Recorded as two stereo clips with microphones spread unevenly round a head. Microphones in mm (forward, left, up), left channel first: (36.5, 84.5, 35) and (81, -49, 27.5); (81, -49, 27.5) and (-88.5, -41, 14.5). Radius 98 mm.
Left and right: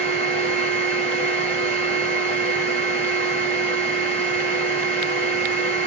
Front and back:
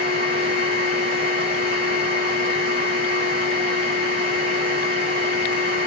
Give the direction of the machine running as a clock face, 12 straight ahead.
6 o'clock.